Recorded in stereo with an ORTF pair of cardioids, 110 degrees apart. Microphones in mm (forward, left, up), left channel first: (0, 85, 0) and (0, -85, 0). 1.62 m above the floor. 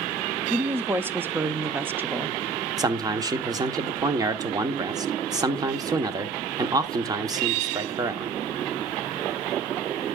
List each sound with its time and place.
0.5 s a woman speaking: 15° right, 0.7 m
2.8 s a man speaking: 25° right, 1.1 m